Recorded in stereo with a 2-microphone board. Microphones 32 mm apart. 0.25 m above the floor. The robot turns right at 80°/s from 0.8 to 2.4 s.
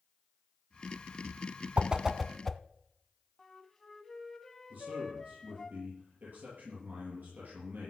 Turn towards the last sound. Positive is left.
turn(degrees=-60)  # may be behind; listen again after turning